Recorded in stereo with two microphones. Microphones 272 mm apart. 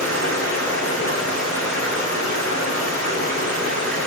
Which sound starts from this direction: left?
Running water, at 0.0 s.